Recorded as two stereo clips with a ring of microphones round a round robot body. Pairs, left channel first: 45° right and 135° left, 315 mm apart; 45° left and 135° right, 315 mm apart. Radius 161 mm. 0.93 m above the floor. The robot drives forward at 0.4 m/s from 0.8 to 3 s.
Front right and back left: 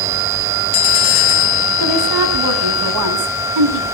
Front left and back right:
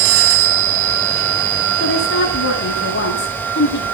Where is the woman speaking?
100° left, 8.5 m; by 3.8 s 105° left, 9 m.